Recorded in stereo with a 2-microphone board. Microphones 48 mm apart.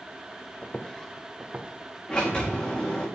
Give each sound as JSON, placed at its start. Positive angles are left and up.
{"t": 0.6, "sound": "footsteps", "side_deg": 35, "distance_m": 1.2}
{"t": 2.1, "sound": "a sliding door", "side_deg": 20, "distance_m": 5.0}